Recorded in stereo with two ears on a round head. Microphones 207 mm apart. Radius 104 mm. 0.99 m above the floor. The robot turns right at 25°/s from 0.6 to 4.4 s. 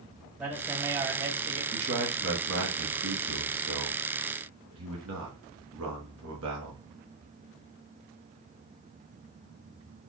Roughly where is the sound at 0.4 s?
Centre.